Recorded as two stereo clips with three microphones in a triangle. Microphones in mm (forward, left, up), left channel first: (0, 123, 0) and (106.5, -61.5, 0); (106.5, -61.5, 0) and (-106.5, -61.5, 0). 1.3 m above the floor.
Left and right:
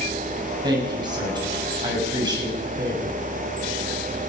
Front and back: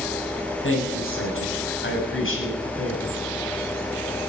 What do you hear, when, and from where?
0.6 s a woman speaking: 10° left, 7 m